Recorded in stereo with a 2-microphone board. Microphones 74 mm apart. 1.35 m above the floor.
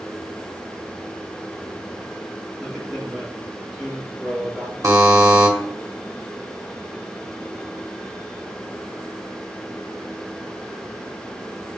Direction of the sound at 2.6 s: Centre (ahead or behind).